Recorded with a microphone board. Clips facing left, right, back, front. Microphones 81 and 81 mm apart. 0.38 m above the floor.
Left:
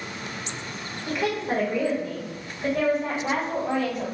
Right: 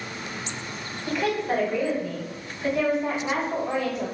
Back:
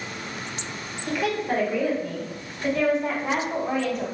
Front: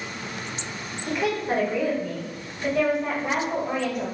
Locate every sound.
1.1 s a woman speaking: 40° left, 1.6 m; by 4.0 s 80° left, 3 m